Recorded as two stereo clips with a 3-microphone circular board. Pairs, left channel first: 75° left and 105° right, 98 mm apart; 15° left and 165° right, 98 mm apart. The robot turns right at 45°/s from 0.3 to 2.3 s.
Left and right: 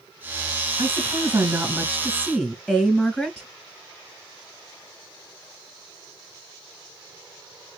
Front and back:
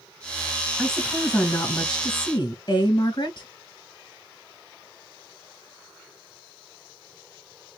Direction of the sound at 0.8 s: 80° right.